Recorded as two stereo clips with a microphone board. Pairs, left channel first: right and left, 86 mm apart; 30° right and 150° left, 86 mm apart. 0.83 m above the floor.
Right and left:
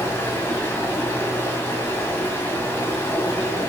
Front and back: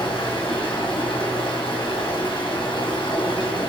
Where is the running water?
30° right, 2 m.